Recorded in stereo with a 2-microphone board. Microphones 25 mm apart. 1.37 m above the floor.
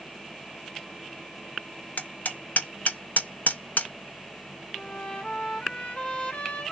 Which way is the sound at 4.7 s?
55° left (ahead or behind).